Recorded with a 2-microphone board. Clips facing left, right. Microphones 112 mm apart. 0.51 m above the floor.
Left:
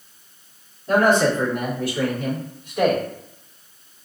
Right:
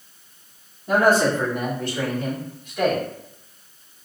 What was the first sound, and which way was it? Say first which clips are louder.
A man speaking: left 1 dB; 10° right (ahead or behind).